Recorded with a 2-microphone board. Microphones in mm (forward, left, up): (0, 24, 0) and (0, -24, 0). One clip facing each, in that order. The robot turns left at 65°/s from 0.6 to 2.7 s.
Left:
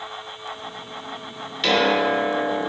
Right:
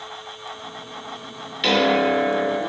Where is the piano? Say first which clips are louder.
Right 1 dB; 5° right, 0.5 m; by 2.6 s 70° right, 0.5 m.